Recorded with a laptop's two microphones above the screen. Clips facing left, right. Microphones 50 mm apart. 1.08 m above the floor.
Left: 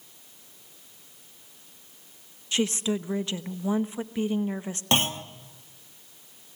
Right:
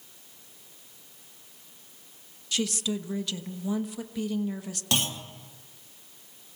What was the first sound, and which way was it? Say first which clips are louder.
A woman speaking: left 3 dB; 30° left (ahead or behind).